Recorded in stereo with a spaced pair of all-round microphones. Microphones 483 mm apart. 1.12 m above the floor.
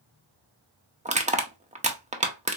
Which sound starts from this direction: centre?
Crushing, at 1.1 s.